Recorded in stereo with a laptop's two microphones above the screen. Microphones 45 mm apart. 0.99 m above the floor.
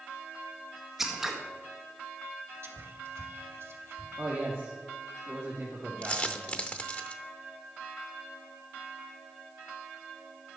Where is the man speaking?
40° right (ahead or behind), 1.7 m.